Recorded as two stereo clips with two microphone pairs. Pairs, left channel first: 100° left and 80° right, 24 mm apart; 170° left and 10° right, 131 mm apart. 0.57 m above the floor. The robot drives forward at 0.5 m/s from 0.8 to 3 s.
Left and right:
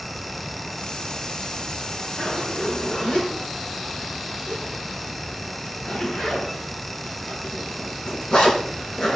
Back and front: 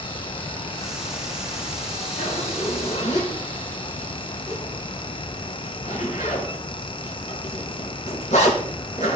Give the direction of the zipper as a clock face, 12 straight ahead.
7 o'clock.